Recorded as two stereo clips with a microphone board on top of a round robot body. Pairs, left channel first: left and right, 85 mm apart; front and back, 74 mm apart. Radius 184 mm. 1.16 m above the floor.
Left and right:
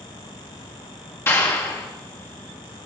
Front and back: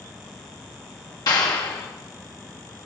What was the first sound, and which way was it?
A clap, 30° left.